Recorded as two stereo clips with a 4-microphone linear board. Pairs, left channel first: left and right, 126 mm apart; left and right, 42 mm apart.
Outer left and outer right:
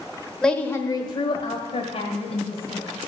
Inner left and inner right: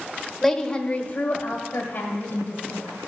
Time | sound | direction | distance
0.4 | a woman speaking | 5° left (ahead or behind) | 1.1 m